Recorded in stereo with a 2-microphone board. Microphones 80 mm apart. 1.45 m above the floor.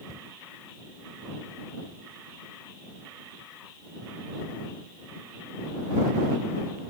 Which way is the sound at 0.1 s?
40° right (ahead or behind).